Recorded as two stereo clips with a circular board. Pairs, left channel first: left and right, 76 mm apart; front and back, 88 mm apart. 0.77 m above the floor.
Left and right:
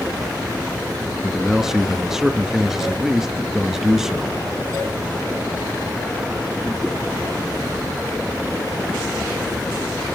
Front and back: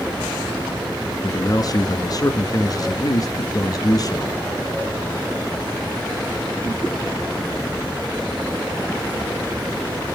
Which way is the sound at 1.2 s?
10° right.